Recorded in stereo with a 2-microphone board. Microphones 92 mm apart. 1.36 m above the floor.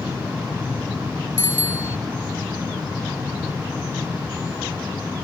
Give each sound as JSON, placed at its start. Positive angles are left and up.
{"t": 1.4, "sound": "a bicycle bell", "side_deg": -25}